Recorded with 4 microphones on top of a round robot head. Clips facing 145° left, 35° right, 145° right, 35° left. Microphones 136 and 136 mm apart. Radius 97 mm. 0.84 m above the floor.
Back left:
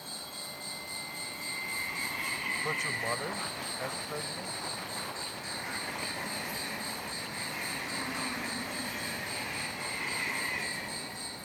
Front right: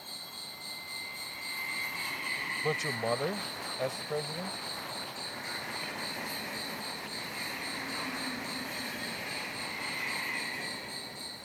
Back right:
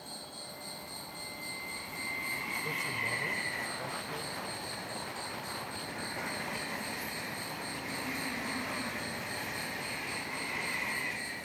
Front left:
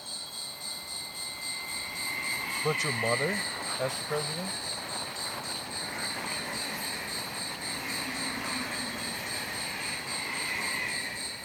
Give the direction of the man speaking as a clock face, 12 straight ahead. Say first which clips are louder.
Front right 5 dB, front left 14 dB; 11 o'clock.